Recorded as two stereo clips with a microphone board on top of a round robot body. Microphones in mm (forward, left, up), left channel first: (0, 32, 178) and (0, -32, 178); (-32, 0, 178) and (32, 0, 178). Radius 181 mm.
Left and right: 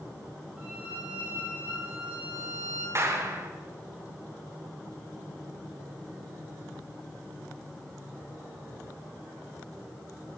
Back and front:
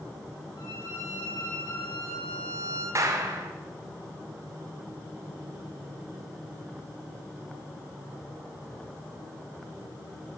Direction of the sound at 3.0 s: 40° right.